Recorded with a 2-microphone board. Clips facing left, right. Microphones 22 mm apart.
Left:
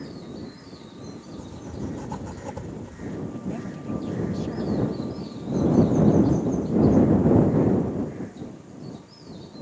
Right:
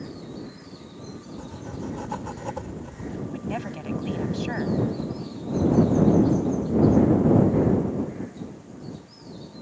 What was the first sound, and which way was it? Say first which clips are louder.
Writing: even; 30° right (ahead or behind).